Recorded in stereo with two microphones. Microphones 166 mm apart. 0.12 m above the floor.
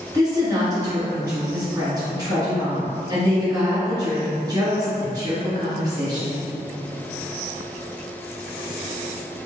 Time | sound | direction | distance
0.1 | a woman speaking | 25° right (ahead or behind) | 1.7 m